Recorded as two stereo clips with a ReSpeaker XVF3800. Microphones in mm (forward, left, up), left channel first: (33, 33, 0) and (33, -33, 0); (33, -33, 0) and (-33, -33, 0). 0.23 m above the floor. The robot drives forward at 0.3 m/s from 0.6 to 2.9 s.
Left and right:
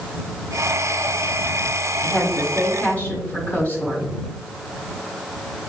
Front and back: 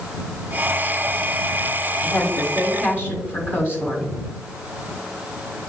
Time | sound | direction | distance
2.0 | a woman speaking | 110° left | 1.2 m